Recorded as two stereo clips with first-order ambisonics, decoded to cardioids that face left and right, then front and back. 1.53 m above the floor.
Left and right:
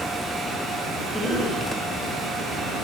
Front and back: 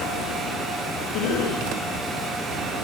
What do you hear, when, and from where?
1.1 s a cough: straight ahead, 6.5 m